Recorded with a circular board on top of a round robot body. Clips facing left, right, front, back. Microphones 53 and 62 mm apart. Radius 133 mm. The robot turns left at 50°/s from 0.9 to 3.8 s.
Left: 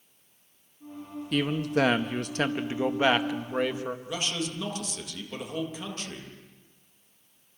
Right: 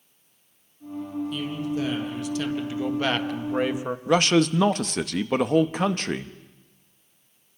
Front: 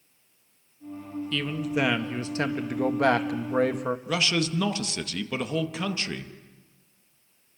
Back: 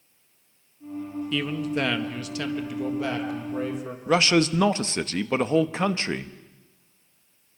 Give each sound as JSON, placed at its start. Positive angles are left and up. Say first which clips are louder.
{"t": 1.3, "sound": "a man speaking", "louder": "left 7 dB, back 1 dB", "azimuth_deg": 105, "distance_m": 1.8}
{"t": 4.1, "sound": "a man speaking", "louder": "right 17 dB, back 9 dB", "azimuth_deg": -120, "distance_m": 1.0}